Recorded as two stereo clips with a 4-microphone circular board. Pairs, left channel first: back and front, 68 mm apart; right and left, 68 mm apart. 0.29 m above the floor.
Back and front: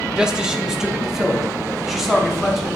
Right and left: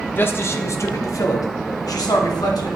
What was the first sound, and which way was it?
A man speaking, 70° right.